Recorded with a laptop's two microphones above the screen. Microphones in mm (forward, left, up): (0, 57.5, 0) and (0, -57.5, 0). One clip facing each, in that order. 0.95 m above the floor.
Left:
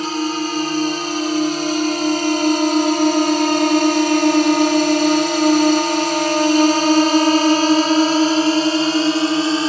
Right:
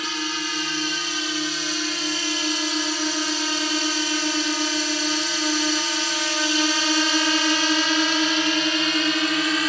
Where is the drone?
40° left (ahead or behind); by 9.7 s 30° left (ahead or behind).